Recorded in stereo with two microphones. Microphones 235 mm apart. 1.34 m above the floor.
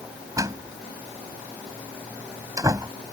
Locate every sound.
0.4 s a door slam: 15° right (ahead or behind)